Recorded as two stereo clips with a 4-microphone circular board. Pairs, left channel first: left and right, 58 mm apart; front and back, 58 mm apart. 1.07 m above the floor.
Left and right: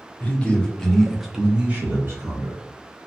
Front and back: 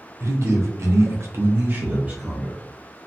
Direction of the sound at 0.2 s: 150° left.